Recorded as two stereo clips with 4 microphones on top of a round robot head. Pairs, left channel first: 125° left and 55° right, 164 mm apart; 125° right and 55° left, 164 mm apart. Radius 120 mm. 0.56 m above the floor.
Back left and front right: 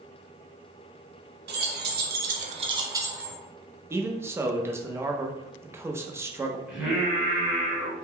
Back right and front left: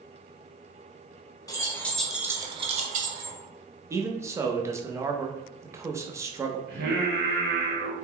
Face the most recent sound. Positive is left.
turn(degrees=30)